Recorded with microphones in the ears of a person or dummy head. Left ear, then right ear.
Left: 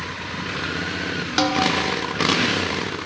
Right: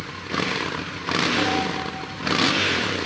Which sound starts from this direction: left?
A snare drum, at 1.4 s.